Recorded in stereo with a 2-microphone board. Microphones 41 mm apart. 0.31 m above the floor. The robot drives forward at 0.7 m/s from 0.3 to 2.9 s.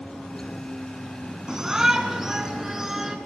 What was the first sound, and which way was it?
A shout, 15° right (ahead or behind).